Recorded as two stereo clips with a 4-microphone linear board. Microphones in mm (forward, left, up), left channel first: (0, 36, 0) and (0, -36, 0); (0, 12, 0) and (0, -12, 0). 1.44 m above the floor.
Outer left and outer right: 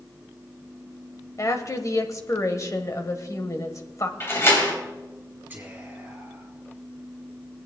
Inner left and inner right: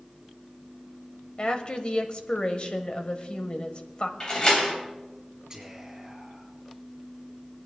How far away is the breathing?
No breathing in this recording.